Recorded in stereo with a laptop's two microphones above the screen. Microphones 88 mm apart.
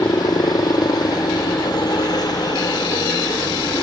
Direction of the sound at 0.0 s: 50° left (ahead or behind).